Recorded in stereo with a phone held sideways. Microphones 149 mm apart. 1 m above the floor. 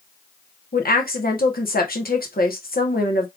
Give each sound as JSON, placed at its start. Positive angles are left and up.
{"t": 0.7, "sound": "a woman speaking", "side_deg": 85, "distance_m": 1.3}